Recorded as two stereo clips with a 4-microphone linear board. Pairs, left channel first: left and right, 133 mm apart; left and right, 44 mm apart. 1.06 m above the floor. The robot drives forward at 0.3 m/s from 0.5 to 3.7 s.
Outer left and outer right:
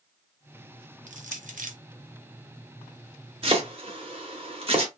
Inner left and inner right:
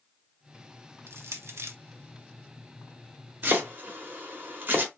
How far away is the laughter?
I don't hear laughter.